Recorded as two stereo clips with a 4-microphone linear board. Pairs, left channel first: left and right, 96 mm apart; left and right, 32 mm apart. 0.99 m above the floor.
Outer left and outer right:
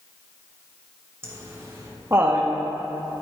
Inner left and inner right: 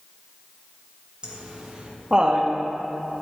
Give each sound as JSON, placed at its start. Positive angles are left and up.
{"t": 1.2, "sound": "laughter", "side_deg": -25, "distance_m": 1.0}